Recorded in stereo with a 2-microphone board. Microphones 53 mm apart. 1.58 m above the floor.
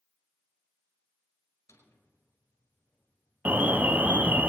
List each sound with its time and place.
1.7 s a drawer: 65° left (ahead or behind), 4.5 m
3.5 s an alarm: 35° right (ahead or behind), 0.6 m